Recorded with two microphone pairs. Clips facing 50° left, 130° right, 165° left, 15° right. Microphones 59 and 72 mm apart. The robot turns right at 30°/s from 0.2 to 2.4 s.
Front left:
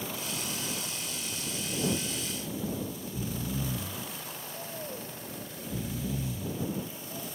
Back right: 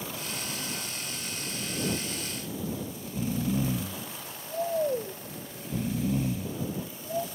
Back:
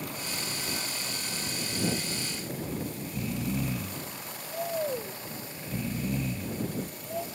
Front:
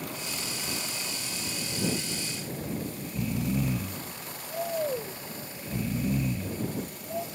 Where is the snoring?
100° right.